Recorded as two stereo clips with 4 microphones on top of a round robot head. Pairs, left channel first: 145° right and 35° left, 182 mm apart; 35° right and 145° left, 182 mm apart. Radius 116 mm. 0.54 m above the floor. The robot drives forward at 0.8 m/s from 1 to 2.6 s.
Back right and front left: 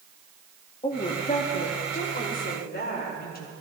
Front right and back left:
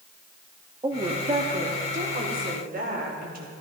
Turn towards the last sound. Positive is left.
turn(degrees=180)